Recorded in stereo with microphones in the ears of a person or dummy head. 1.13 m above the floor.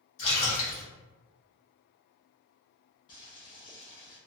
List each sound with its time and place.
0.2 s a splash: 70° left (ahead or behind), 1.4 m
3.1 s boiling: 55° left (ahead or behind), 1.8 m